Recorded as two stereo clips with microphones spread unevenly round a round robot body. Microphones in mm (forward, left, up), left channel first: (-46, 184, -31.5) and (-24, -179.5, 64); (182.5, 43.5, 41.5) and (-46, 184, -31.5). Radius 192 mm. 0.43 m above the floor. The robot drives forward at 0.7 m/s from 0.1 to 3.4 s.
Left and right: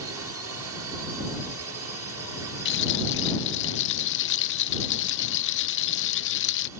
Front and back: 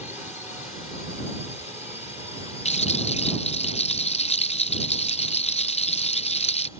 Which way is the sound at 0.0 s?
100° right.